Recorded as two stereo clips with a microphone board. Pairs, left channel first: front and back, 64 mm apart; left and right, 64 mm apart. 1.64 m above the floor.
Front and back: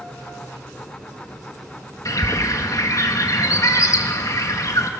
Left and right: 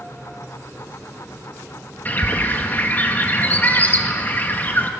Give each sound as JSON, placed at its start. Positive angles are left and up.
{"t": 2.0, "sound": "a bird", "azimuth_deg": 30, "distance_m": 1.9}